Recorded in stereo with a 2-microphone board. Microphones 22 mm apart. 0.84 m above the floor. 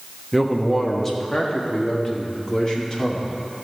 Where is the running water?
I don't hear running water.